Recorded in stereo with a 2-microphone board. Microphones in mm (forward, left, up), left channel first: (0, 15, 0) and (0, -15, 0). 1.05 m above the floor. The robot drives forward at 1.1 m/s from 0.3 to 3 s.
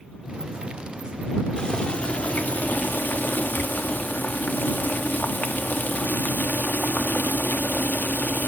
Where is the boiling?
30° left (ahead or behind), 1.8 m; by 8.5 s 80° left, 0.9 m.